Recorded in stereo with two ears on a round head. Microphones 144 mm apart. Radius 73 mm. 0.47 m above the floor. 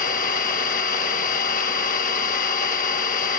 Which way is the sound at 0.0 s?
55° left (ahead or behind).